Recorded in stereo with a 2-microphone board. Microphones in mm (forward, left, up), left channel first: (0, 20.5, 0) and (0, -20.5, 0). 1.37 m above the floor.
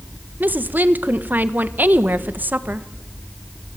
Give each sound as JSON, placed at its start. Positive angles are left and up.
{"t": 0.4, "sound": "a woman speaking", "side_deg": -45, "distance_m": 1.4}